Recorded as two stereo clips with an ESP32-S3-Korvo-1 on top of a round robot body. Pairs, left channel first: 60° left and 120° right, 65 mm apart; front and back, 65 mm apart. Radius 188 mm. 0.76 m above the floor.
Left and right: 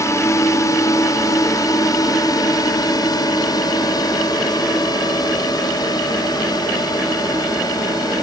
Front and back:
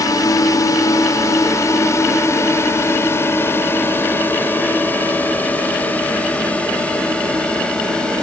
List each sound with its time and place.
0.0 s a drone: 20° left; by 8.2 s 75° left